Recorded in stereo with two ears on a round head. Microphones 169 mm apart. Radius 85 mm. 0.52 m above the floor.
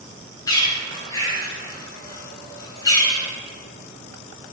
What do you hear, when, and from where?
0.5 s a bird: 20° left (ahead or behind), 2 m